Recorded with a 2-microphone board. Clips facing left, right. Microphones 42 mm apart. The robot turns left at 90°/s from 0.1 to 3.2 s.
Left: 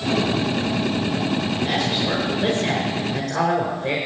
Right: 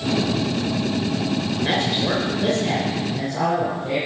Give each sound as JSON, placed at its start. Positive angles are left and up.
{"t": 1.6, "sound": "a man speaking", "azimuth_deg": -115, "distance_m": 4.5}